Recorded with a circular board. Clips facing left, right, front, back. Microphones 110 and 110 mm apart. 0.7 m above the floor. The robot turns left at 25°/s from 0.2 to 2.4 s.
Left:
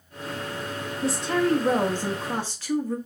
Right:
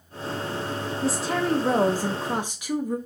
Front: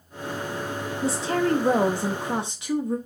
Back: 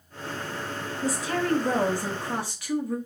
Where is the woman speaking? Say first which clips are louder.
Left 2 dB, front 3 dB; straight ahead, 0.6 m; by 3.0 s 35° right, 0.6 m.